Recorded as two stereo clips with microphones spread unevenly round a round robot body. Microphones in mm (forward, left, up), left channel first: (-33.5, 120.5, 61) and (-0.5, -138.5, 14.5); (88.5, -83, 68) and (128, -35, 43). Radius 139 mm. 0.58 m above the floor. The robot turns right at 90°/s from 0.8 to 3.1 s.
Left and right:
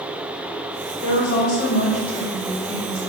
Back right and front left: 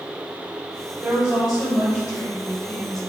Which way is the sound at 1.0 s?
75° left.